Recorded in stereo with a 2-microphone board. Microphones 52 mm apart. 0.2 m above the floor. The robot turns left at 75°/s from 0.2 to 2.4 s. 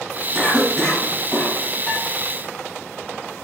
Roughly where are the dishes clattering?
Left.